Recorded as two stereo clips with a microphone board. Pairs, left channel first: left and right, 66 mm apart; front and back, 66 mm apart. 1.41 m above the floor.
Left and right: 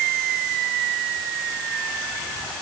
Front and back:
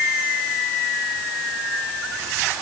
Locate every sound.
Only background noise.